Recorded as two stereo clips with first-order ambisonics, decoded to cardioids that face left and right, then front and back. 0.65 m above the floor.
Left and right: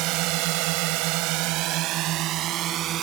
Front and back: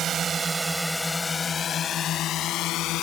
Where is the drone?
120° right; by 3.0 s 35° right.